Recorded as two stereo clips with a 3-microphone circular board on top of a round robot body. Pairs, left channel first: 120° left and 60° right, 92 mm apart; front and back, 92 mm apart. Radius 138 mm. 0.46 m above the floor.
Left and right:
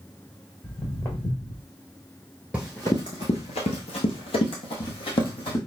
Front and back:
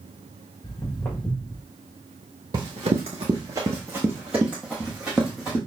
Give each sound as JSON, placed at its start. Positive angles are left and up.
{"t": 0.6, "sound": "footsteps", "azimuth_deg": 70, "distance_m": 2.0}
{"t": 2.5, "sound": "running footsteps", "azimuth_deg": -140, "distance_m": 0.6}